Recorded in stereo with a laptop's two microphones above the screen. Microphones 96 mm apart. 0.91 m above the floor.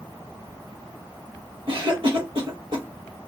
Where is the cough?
55° right (ahead or behind), 0.7 m.